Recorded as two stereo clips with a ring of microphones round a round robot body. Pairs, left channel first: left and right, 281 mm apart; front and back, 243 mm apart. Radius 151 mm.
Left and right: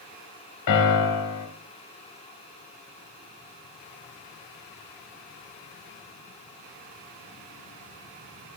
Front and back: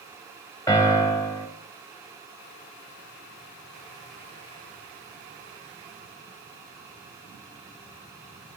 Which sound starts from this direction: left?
A piano, at 0.7 s.